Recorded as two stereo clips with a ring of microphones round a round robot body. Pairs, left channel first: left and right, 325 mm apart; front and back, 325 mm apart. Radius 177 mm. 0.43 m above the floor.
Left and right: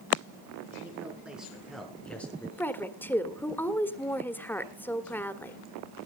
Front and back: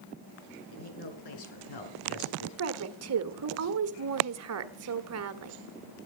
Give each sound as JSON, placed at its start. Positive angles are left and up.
{"t": 0.7, "sound": "a man speaking", "azimuth_deg": -5, "distance_m": 6.0}
{"t": 2.6, "sound": "a woman speaking", "azimuth_deg": 170, "distance_m": 1.6}